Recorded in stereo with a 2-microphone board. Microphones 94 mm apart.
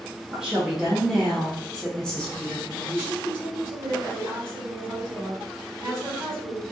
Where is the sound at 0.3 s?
10° right (ahead or behind), 1.2 m; by 3.0 s 15° left (ahead or behind), 1.3 m.